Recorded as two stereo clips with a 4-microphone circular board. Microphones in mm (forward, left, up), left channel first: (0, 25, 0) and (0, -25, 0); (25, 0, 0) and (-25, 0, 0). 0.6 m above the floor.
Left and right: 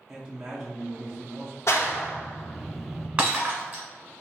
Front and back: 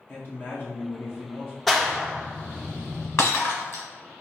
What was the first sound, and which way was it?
A man speaking, 20° right.